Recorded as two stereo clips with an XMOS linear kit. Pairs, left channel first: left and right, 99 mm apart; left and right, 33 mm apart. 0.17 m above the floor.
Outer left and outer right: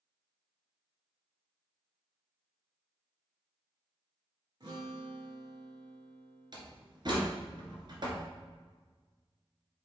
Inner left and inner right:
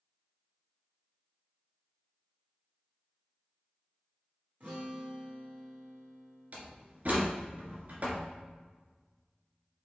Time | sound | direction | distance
4.6 | a guitar | 45° right (ahead or behind) | 2.5 m
6.5 | a door slam | 50° right (ahead or behind) | 2 m